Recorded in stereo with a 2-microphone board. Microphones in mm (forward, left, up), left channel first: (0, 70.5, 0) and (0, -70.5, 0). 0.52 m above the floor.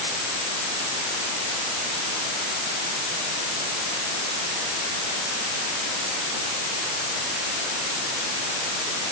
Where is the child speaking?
No child speaking in this recording.